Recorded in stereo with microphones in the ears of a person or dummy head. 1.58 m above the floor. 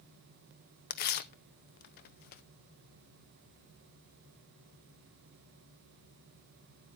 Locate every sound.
0.9 s tearing paper: 45° left (ahead or behind), 0.5 m